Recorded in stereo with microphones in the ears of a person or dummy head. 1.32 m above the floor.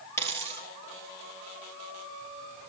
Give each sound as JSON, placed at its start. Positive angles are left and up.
{"t": 0.2, "sound": "a dropped coin", "side_deg": 15, "distance_m": 3.0}